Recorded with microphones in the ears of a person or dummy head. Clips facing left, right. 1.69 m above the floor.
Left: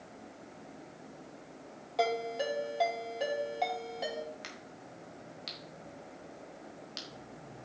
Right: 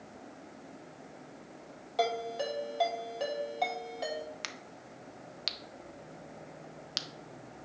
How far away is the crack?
About 0.8 m.